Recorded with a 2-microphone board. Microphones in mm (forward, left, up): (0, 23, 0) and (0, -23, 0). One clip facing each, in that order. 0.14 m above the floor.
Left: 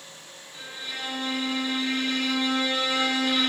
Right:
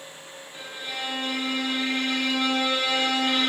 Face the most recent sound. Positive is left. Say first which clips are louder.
# right 2 dB
turn(degrees=-35)  # may be behind; listen again after turning